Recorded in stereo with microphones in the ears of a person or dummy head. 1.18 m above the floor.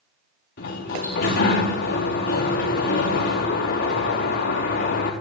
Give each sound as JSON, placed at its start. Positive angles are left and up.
{"t": 0.6, "sound": "a sliding door", "side_deg": 60, "distance_m": 5.0}